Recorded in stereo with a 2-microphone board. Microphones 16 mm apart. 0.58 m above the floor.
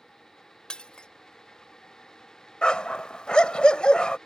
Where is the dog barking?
75° left (ahead or behind).